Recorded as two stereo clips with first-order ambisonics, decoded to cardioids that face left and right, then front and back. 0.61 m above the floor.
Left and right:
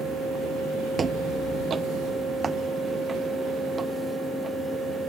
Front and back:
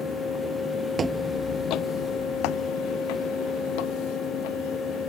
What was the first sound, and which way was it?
Footsteps, 140° right.